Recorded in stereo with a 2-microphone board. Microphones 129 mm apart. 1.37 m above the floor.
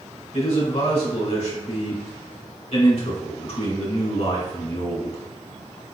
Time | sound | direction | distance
0.3 | a man speaking | 60° left (ahead or behind) | 1.9 m